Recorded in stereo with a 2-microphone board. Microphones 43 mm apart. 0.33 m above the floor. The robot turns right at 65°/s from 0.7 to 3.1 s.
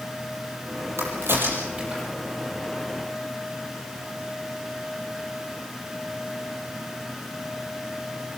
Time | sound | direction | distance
1.0 | a crack | 75° right (ahead or behind) | 6.5 m